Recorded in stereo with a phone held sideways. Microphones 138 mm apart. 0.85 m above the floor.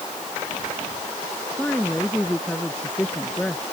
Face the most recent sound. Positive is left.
turn(degrees=10)  # may be behind; listen again after turning